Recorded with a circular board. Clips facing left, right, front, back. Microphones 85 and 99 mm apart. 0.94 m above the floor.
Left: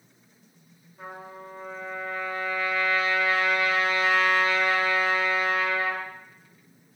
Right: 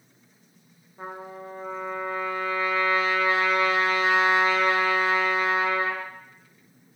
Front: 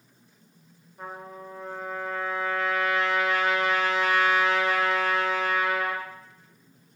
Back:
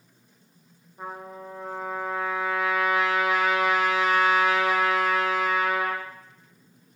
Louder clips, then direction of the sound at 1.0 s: Right 3 dB, back 2 dB; 105° right.